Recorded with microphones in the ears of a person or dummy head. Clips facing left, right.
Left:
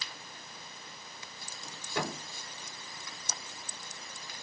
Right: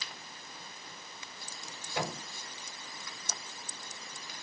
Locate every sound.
1.9 s a thud: 60° left (ahead or behind), 3 m